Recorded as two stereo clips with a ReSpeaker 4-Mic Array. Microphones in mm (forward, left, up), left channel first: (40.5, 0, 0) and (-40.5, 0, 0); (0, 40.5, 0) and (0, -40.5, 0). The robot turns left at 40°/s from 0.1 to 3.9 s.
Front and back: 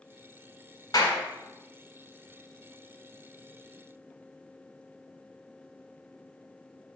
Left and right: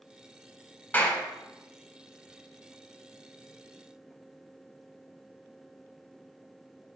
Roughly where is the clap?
Ahead.